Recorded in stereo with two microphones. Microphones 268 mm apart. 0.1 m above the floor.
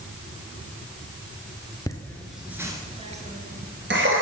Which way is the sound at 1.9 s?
10° left (ahead or behind).